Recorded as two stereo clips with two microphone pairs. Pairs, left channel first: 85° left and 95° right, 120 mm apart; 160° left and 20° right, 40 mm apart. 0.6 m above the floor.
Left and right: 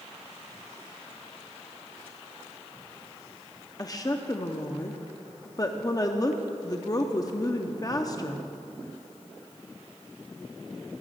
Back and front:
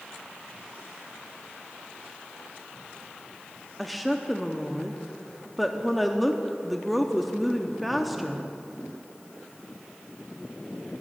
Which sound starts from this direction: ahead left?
A woman speaking, at 3.8 s.